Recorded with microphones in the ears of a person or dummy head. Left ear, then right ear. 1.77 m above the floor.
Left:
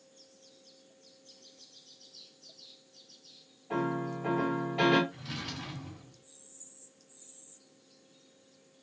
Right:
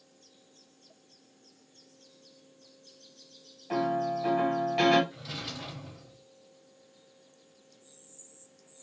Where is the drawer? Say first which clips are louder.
Right 2 dB; 40° right (ahead or behind), 1.4 m.